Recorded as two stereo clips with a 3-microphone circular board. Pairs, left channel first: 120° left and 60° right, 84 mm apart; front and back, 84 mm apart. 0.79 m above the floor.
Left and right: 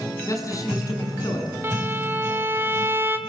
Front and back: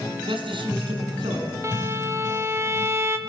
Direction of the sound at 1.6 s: 120° right.